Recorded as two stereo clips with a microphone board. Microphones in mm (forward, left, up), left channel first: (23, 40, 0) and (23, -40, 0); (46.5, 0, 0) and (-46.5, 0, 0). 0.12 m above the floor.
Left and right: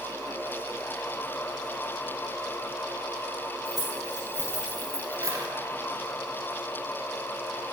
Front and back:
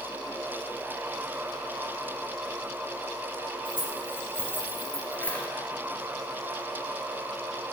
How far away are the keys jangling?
About 2.5 m.